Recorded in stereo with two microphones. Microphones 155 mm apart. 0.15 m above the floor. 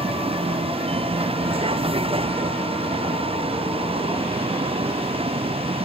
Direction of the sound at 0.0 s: 35° right (ahead or behind).